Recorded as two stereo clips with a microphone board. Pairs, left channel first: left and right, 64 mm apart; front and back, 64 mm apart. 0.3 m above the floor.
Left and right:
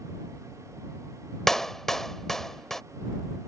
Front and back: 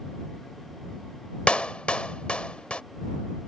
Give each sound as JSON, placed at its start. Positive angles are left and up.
{"t": 1.5, "sound": "a clap", "azimuth_deg": 20}